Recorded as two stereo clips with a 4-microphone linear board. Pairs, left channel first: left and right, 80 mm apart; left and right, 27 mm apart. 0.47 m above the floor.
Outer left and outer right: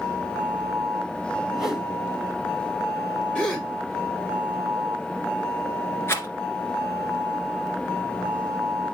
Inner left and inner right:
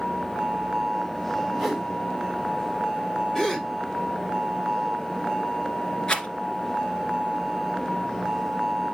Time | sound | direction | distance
1.5 | a whoosh | 5° right (ahead or behind) | 2.5 m
3.4 | a gasp | 15° left (ahead or behind) | 1.9 m
6.1 | a rattle | 30° left (ahead or behind) | 1.9 m